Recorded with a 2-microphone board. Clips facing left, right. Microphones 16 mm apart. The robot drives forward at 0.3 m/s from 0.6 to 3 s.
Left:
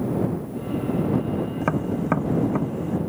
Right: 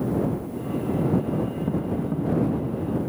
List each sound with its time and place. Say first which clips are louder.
1.6 s tapping: left 2 dB; 75° left (ahead or behind)